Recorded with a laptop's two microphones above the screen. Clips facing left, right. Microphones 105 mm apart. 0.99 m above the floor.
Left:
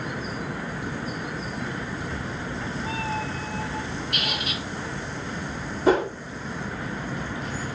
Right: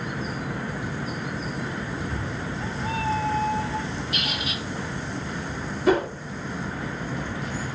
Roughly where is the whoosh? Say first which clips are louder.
Left 1 dB; left.